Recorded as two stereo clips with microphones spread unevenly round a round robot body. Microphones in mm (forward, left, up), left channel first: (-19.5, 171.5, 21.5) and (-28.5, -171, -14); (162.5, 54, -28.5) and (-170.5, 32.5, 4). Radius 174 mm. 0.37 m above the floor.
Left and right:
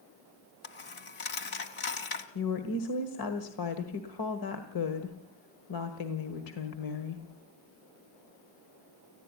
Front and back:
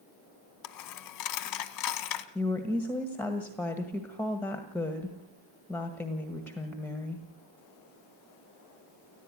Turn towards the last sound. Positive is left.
turn(degrees=85)